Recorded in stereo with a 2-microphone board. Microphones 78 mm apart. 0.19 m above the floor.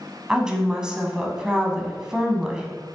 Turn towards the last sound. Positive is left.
turn(degrees=-10)  # may be behind; listen again after turning